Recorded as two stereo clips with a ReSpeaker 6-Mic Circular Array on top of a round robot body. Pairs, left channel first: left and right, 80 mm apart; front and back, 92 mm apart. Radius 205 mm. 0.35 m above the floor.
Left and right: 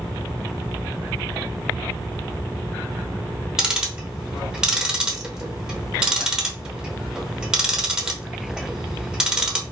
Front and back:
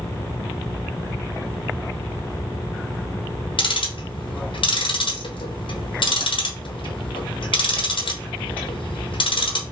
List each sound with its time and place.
3.6 s ticking: 10° right, 1.1 m